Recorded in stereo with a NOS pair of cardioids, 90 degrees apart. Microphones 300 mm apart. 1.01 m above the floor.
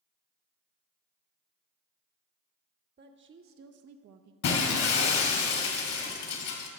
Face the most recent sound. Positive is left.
turn(degrees=65)